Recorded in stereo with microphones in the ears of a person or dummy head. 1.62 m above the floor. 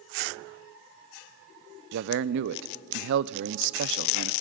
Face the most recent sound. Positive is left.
turn(degrees=-60)  # may be behind; listen again after turning